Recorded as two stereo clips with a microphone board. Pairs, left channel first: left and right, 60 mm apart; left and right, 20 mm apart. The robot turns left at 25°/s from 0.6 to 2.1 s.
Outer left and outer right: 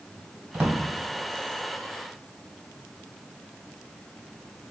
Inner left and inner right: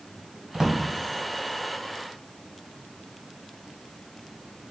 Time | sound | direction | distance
0.5 | a drawer | 25° right (ahead or behind) | 1.4 m